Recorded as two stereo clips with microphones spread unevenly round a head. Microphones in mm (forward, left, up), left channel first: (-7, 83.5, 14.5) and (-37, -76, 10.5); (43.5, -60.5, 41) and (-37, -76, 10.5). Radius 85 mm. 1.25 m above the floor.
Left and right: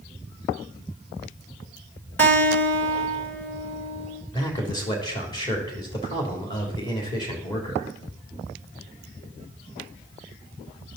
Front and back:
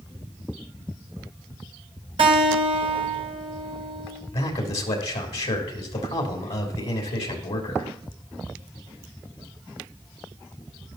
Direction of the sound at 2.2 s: 160° left.